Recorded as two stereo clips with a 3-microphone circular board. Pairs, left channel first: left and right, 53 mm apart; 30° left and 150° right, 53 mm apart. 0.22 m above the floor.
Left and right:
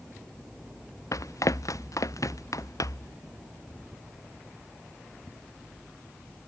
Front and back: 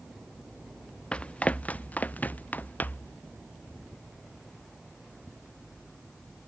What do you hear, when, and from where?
1.1 s running footsteps: 100° left; by 3.1 s 85° left